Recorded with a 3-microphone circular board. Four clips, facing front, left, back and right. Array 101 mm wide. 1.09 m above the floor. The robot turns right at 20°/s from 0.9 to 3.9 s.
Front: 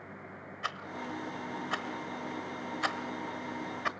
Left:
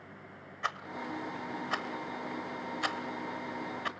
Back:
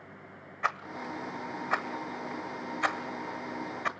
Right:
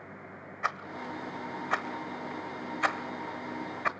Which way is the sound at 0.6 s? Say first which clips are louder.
Right 2 dB, back 5 dB; 155° right.